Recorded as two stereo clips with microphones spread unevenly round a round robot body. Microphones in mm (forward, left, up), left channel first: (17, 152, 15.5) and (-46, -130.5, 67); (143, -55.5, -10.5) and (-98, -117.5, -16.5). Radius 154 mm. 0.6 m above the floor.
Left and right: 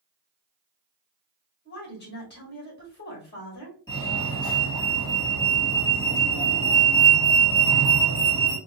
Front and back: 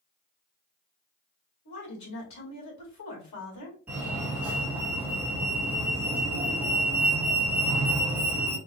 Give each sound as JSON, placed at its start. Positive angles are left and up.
{"t": 1.6, "sound": "a woman speaking", "azimuth_deg": 25, "distance_m": 2.5}
{"t": 3.9, "sound": "a fire alarm", "azimuth_deg": 115, "distance_m": 2.0}